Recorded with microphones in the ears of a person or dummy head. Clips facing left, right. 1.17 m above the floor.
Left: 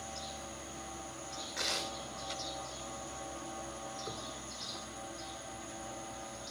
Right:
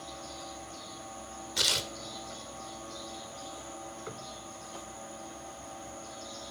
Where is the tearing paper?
40° right (ahead or behind), 2.5 m.